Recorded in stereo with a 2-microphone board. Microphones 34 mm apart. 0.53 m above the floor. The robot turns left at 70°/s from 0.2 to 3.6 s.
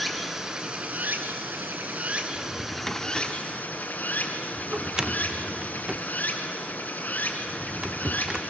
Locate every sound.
0.0 s running water: straight ahead, 1.7 m; by 8.5 s 120° left, 1.7 m
2.4 s a drawer: 40° left (ahead or behind), 0.6 m; by 8.4 s 20° right (ahead or behind), 0.6 m